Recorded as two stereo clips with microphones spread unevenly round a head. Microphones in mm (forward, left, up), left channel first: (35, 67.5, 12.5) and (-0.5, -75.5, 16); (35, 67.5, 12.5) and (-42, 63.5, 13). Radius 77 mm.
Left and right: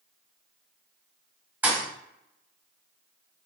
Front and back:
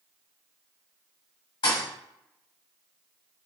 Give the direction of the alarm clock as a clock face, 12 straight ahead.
No alarm clock in this recording.